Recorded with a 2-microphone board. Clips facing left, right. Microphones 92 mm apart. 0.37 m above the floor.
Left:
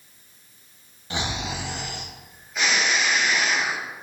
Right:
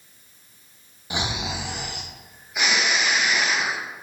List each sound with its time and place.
1.1 s snoring: 15° right (ahead or behind), 0.5 m